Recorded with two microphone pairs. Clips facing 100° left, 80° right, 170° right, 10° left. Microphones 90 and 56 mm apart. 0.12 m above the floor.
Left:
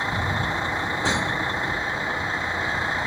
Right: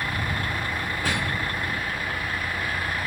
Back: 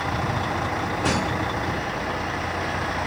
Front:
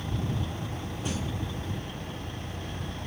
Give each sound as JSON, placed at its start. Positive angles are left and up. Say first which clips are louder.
{"t": 0.0, "sound": "a vehicle", "louder": "left 3 dB, back 9 dB", "azimuth_deg": 170}